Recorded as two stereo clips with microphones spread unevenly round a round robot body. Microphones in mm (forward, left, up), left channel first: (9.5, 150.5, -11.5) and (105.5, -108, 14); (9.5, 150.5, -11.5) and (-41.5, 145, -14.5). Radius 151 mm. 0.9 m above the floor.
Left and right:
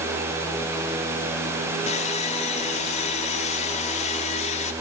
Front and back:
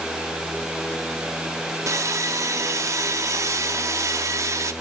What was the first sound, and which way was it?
Sawing, straight behind.